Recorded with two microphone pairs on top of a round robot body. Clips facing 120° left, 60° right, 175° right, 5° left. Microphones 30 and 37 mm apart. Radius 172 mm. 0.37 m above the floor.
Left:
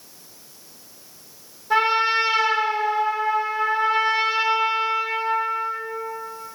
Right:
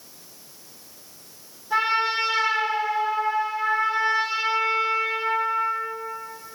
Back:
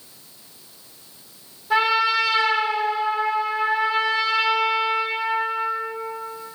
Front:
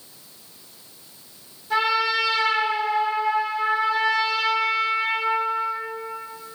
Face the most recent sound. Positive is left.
turn(degrees=120)